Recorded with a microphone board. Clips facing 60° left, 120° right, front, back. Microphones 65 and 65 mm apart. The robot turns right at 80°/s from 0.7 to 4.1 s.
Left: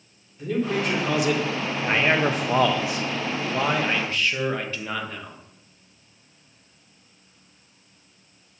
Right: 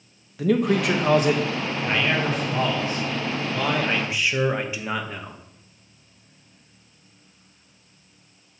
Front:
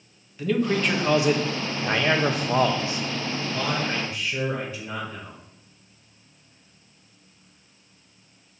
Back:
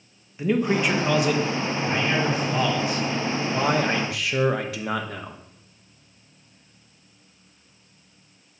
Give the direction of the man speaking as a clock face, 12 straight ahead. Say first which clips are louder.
Right 4 dB, back 1 dB; 4 o'clock.